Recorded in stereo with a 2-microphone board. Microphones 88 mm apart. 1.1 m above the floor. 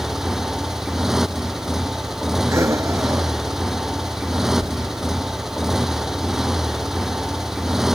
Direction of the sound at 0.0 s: 5° right (ahead or behind).